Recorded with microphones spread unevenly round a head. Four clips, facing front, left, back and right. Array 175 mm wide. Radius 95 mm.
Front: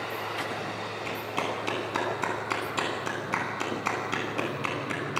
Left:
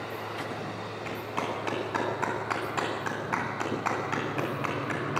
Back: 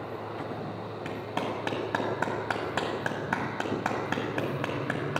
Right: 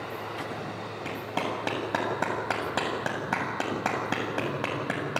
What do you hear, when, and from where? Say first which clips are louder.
1.1 s a clap: right 2 dB, even; 115° right, 7.5 m